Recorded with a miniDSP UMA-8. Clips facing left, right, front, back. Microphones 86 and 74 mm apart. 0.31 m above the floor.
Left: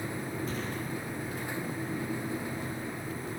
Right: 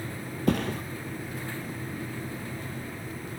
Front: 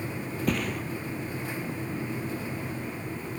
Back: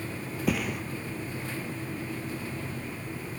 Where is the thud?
95° right, 1.2 m.